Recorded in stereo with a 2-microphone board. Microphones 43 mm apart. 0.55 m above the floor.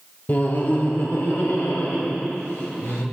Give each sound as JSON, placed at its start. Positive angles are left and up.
{"t": 0.3, "sound": "laughter", "side_deg": 35, "distance_m": 0.9}